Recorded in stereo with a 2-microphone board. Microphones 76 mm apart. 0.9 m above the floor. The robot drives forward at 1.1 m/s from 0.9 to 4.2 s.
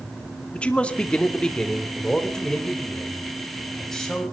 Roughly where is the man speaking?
Centre.